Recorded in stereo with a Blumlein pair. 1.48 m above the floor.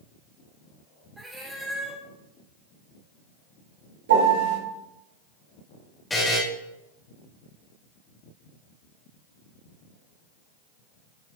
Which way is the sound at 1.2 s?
5° right.